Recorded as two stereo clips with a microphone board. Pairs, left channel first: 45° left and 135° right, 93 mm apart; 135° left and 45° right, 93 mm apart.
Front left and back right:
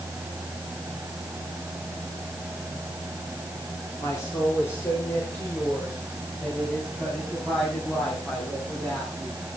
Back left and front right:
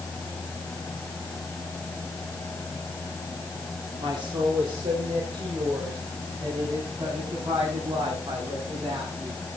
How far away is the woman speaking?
About 2.5 m.